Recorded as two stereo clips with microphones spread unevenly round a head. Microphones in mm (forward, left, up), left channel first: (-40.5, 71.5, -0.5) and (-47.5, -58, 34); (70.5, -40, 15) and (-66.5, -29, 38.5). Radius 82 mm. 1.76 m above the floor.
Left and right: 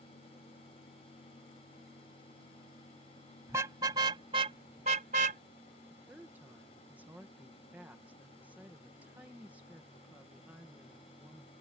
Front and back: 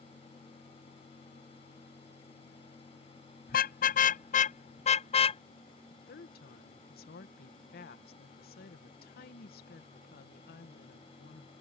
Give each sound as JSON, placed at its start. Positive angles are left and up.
{"t": 3.5, "sound": "a car horn", "azimuth_deg": -25}
{"t": 5.9, "sound": "a woman speaking", "azimuth_deg": -10}